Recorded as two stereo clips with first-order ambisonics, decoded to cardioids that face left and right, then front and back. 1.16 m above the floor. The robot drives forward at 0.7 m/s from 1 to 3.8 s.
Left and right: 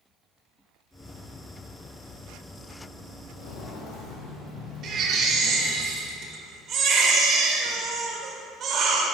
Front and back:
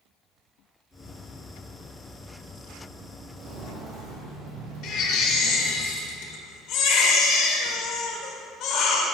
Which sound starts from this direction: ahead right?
A baby crying, at 4.8 s.